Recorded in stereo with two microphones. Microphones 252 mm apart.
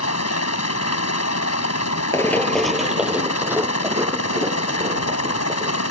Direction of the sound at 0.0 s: 70° left (ahead or behind).